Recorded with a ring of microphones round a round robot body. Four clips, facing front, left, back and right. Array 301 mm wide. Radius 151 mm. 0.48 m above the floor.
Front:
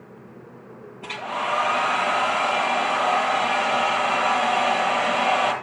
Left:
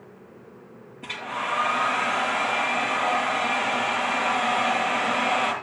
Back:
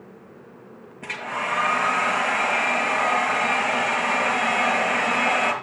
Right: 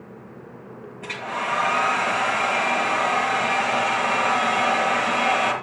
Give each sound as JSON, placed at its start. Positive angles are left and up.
{"t": 1.0, "sound": "a hair dryer", "azimuth_deg": -155, "distance_m": 6.5}